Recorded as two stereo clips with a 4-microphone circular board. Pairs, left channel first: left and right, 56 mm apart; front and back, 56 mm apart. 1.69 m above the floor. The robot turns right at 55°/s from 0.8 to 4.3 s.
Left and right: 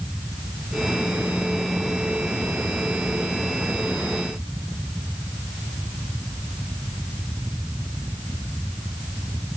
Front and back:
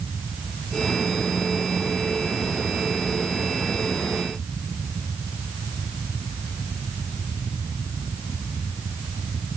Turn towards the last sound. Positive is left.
No sound to turn to.